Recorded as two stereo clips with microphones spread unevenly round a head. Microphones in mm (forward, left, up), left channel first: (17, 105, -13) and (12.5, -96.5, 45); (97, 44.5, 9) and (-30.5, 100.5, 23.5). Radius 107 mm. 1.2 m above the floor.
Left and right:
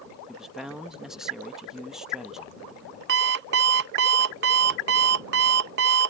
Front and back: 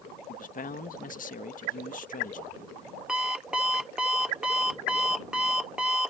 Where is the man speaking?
5° right.